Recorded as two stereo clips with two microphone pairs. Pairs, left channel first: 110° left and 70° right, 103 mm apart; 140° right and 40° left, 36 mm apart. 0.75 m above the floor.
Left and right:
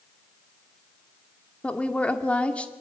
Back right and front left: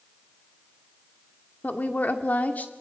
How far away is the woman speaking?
About 2 m.